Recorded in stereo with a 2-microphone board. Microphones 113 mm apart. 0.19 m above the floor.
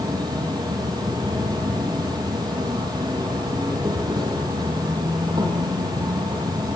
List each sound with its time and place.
0.0 s an insect: 35° right (ahead or behind), 9 m